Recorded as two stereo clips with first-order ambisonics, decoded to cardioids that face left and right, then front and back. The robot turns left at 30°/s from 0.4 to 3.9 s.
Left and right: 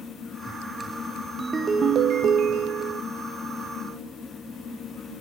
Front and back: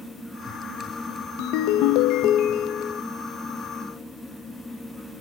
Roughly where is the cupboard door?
I don't hear a cupboard door.